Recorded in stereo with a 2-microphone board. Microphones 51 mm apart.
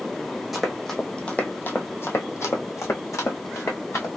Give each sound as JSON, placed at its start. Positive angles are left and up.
{"t": 0.5, "sound": "running footsteps", "side_deg": -5, "distance_m": 1.0}